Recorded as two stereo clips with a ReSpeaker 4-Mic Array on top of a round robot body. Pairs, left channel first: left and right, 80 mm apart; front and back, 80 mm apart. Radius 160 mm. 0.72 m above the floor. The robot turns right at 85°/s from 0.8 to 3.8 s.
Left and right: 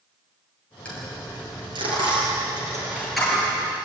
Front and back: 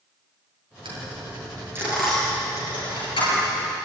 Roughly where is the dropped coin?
Behind.